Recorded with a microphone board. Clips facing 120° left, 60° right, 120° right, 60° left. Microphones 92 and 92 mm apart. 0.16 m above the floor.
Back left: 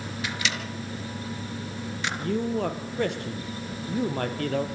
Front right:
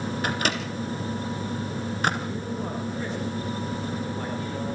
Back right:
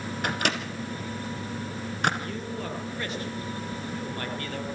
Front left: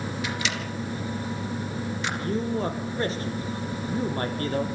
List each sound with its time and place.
0.2 s a microwave: 95° right, 2 m
2.2 s a man speaking: 115° left, 3.5 m